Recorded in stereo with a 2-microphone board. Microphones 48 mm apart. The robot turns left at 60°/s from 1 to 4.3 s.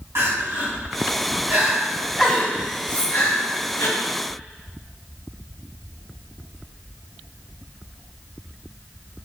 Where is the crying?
75° right (ahead or behind), 3 m; by 3.9 s 80° left, 3 m.